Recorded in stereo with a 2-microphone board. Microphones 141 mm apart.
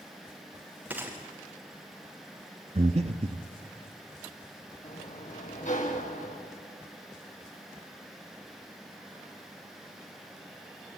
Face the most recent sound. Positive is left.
turn(degrees=60)  # may be behind; listen again after turning